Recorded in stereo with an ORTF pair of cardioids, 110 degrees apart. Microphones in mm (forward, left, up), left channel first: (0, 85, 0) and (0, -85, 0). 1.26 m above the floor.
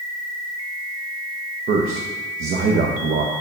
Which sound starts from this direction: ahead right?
A man speaking, at 1.7 s.